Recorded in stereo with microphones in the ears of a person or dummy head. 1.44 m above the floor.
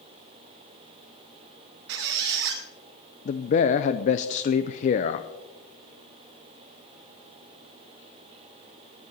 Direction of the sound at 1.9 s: 60° right (ahead or behind).